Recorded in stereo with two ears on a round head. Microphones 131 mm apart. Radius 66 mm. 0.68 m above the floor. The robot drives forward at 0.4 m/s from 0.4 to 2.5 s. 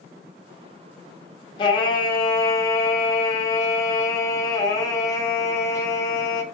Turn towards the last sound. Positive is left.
turn(degrees=25)  # may be behind; listen again after turning